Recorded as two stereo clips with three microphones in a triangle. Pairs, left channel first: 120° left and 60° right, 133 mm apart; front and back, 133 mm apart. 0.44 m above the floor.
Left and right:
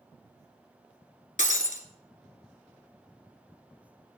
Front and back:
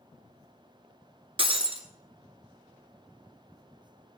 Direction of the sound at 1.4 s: 135° left.